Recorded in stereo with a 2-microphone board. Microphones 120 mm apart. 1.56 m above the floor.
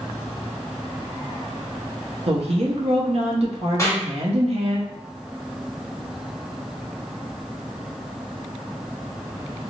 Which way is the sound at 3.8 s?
25° left (ahead or behind).